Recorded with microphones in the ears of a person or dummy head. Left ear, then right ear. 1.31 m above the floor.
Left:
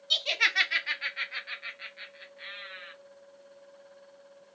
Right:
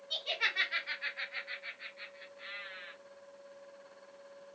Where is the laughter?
65° left (ahead or behind), 0.8 m; by 2.9 s 35° left (ahead or behind), 2.5 m.